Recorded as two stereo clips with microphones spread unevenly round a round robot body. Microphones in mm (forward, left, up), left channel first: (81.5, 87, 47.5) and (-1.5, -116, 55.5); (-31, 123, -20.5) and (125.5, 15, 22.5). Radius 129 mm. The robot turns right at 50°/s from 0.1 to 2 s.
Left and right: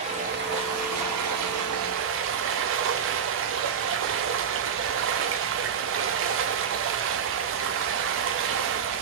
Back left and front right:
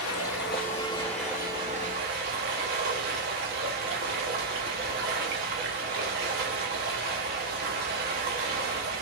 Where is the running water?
Straight behind, 0.7 m; by 9.0 s 85° right, 0.7 m.